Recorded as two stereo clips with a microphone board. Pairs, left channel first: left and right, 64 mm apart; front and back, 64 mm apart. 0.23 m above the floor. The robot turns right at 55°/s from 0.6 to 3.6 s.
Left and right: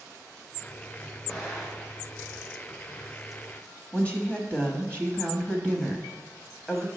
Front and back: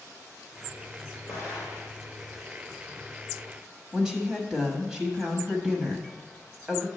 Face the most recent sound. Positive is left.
turn(degrees=115)